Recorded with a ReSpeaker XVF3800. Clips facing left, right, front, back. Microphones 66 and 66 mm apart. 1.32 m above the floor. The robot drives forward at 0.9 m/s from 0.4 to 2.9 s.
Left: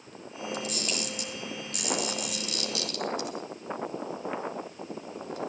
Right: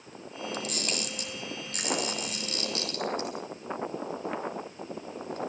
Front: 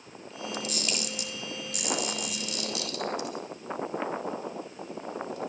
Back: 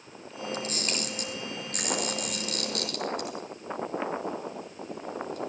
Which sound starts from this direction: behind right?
A camera shutter, at 0.5 s.